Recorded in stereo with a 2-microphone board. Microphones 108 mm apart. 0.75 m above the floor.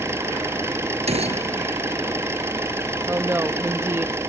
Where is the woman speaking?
25° right (ahead or behind).